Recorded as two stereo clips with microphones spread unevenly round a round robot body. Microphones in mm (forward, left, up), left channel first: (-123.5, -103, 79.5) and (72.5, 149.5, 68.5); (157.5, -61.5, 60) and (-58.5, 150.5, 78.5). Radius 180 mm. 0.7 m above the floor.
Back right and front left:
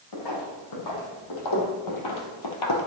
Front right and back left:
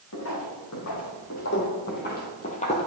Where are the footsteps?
100° right, 2.5 m; by 2.9 s 120° right, 1.0 m.